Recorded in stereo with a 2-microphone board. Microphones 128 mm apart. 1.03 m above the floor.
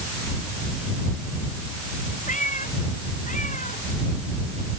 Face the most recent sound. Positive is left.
turn(degrees=85)